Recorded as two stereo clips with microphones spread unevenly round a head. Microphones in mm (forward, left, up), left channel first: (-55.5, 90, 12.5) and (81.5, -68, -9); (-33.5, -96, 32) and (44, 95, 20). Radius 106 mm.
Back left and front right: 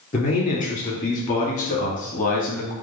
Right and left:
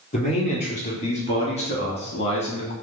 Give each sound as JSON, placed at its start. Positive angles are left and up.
{"t": 0.1, "sound": "a man speaking", "azimuth_deg": -170, "distance_m": 3.0}